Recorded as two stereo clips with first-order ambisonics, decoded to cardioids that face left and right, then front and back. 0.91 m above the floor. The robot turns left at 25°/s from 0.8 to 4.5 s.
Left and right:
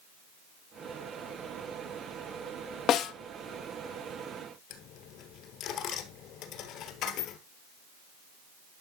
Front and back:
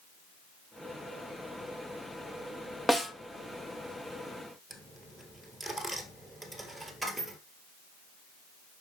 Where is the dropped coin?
90° left, 1.2 m.